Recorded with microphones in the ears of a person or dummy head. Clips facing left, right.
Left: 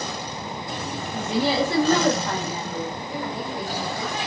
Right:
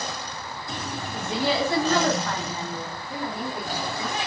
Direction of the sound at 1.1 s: 25° left (ahead or behind).